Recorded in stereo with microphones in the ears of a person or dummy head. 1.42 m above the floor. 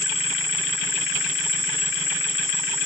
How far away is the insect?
About 6.5 m.